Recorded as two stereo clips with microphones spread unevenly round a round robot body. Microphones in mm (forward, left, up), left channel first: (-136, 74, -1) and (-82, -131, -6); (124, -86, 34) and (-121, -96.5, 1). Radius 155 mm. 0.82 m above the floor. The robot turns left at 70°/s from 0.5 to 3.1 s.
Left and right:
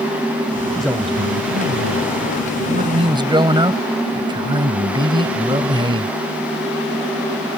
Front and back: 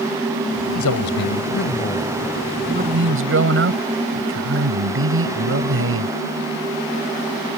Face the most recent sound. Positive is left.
turn(degrees=-145)